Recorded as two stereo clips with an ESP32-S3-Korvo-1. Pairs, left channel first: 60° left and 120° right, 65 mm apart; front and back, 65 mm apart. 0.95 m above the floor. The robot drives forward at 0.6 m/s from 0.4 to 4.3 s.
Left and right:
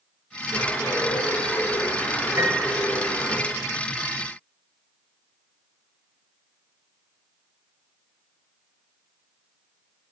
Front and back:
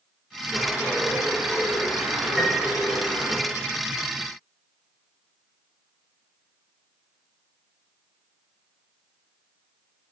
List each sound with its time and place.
0.5 s a bird: 100° left, 3.5 m; by 3.4 s 125° left, 4 m
2.4 s a piano: 95° right, 4 m